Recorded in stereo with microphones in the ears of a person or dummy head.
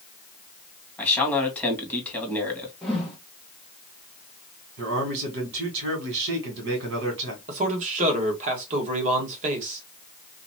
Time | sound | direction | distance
1.0 | a man speaking | 10° left (ahead or behind) | 1.8 m
2.8 | a whoosh | centre (ahead or behind) | 1.3 m
4.8 | a man speaking | 65° right (ahead or behind) | 1.7 m
7.5 | a man speaking | 35° right (ahead or behind) | 1.3 m